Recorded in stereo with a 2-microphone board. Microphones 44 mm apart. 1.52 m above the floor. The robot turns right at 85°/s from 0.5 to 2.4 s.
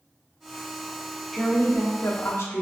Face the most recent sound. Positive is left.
turn(degrees=95)